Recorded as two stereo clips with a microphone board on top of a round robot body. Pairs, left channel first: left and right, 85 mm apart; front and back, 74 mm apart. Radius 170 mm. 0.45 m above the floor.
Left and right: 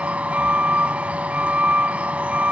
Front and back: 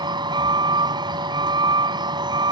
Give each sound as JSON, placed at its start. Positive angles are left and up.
{"t": 0.0, "sound": "a vehicle", "azimuth_deg": -165}